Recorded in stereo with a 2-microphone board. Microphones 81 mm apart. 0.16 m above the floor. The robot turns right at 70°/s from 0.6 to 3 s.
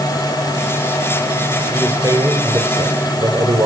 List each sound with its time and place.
1.7 s a man speaking: 150° right, 3.5 m; by 3.7 s 60° right, 3.5 m